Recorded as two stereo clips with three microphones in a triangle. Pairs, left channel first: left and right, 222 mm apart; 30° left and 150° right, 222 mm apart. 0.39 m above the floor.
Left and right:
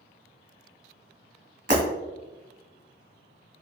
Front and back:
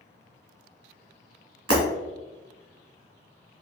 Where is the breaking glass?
145° right, 1.9 m.